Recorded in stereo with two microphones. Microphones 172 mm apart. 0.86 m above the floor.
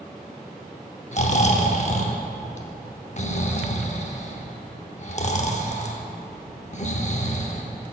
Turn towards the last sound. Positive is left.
turn(degrees=45)  # may be behind; listen again after turning